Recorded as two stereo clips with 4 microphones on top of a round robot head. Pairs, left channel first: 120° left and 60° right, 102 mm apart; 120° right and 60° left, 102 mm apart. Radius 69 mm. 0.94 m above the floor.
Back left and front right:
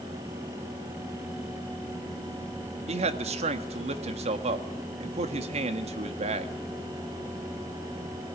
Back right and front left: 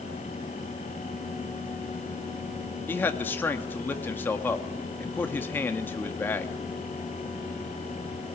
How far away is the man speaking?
About 1.7 m.